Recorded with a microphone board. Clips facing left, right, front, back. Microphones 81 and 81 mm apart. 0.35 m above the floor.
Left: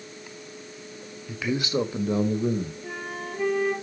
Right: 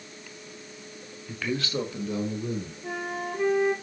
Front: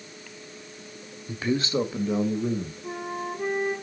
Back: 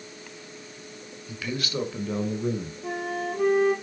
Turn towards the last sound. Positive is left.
turn(degrees=-175)